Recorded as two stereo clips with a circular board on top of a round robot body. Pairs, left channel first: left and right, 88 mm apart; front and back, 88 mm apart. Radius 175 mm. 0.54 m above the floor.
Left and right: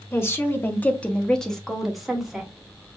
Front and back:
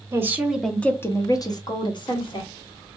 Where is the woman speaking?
140° left, 0.9 m; by 2.5 s 5° right, 1.6 m.